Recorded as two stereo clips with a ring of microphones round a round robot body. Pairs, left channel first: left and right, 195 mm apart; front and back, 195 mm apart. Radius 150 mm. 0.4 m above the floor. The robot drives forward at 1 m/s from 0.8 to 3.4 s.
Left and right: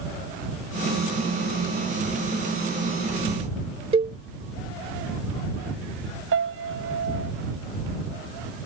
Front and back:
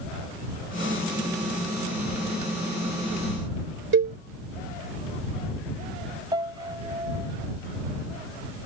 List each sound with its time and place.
3.9 s a cowbell: 155° right
6.3 s a piano: 105° right